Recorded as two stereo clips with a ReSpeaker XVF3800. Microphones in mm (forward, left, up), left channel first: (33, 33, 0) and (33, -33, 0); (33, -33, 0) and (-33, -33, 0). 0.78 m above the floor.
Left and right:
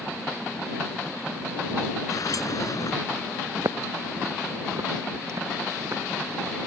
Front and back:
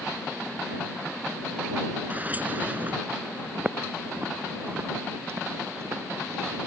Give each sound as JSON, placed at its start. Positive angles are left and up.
{"t": 2.1, "sound": "a sliding door", "azimuth_deg": 115}
{"t": 3.6, "sound": "footsteps", "azimuth_deg": -115}